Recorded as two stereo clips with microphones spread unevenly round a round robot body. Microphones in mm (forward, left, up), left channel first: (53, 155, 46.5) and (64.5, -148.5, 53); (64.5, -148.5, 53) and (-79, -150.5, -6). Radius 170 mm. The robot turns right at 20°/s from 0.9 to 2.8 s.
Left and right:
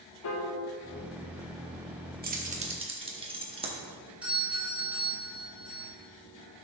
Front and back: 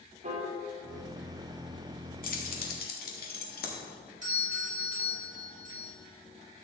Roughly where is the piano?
Behind left.